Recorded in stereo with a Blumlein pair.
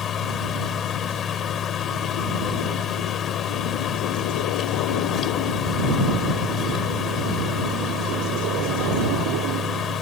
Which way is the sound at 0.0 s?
25° left.